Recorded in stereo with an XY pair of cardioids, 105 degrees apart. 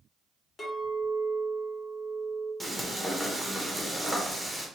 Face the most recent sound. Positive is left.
turn(degrees=0)